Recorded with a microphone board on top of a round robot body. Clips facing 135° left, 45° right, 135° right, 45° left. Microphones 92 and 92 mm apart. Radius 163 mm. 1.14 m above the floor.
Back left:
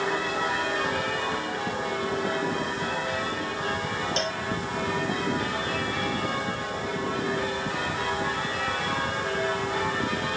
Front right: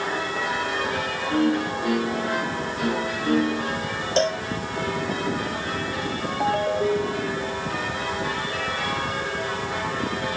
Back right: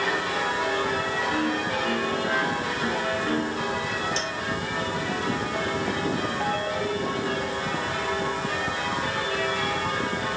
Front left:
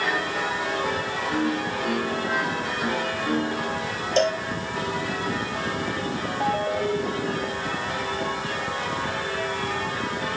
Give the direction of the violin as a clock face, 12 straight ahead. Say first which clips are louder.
Front right 8 dB, front left 3 dB; 1 o'clock.